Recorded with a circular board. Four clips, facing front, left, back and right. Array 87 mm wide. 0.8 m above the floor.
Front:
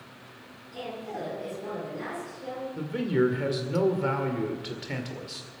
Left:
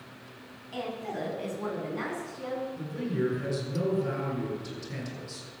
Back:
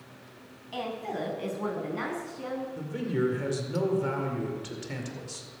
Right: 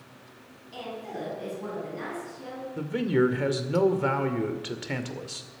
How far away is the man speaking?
About 2 m.